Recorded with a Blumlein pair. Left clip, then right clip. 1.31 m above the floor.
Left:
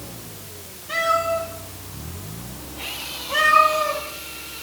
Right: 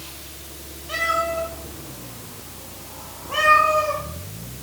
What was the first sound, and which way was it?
A cat meowing, 5° right.